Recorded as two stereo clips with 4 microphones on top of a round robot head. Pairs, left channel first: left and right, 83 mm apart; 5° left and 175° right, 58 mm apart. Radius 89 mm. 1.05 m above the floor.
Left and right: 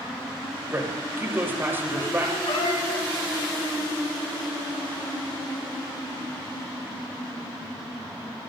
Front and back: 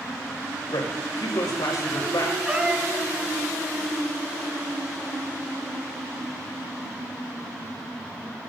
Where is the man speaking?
25° right, 5.5 m.